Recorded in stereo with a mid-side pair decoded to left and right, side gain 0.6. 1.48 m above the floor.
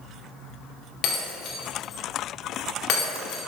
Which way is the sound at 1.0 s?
70° left.